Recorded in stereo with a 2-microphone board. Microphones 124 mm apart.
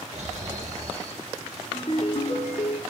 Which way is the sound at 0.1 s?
65° right (ahead or behind).